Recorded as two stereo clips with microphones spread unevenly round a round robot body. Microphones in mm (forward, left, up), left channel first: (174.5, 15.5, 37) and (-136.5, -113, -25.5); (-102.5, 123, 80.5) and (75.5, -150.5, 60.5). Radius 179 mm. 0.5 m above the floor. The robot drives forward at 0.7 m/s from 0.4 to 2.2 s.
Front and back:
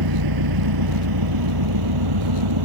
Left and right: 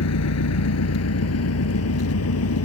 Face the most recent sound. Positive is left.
turn(degrees=170)